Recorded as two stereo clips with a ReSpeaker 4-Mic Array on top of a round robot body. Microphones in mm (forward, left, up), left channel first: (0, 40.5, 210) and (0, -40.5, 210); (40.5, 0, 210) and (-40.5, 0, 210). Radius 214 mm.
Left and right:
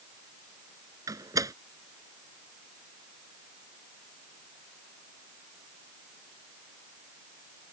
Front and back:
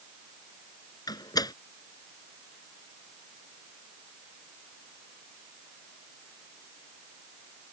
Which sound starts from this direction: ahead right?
A door slam, at 1.1 s.